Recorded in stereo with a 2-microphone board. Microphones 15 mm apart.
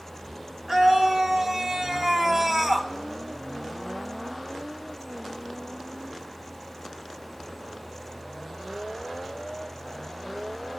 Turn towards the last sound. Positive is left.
turn(degrees=-25)  # may be behind; listen again after turning